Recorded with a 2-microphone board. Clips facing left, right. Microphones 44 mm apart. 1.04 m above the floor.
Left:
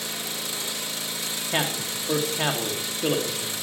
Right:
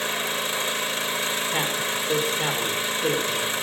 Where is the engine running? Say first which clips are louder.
Right 7 dB; 35° right (ahead or behind), 0.8 m.